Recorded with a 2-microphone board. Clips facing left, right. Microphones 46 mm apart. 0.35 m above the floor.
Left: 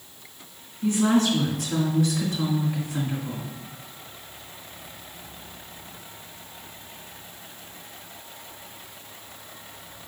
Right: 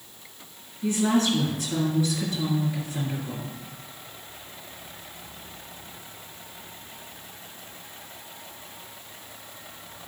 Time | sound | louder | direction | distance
0.8 | a woman speaking | left 2 dB | 65° left (ahead or behind) | 3 m